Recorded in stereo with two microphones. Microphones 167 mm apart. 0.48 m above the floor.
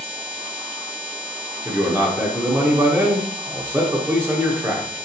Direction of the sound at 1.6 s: 15° right (ahead or behind).